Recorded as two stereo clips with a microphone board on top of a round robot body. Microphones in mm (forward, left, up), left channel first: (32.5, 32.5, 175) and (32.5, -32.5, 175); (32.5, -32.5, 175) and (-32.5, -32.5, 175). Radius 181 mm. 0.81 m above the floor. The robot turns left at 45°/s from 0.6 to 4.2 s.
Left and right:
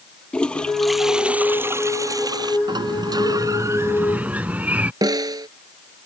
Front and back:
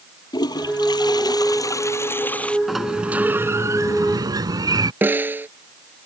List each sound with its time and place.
0.3 s a toilet flushing: 15° left; by 2.6 s 75° right
2.7 s a sliding door: 90° right; by 4.9 s 160° right
5.0 s a snare drum: 120° right